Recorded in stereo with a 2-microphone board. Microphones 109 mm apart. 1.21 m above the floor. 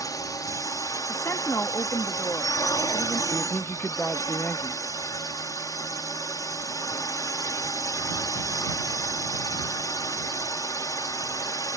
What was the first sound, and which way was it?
A drone, 30° left (ahead or behind).